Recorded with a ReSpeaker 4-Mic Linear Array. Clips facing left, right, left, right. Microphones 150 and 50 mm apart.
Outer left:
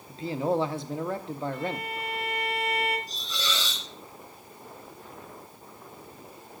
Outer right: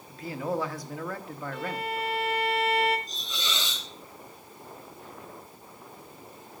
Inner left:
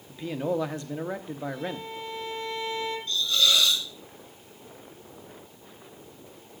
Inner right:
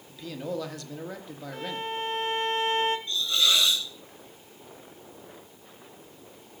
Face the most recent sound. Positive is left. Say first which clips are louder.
# outer left 2 dB, inner left 1 dB
turn(degrees=-20)  # may be behind; listen again after turning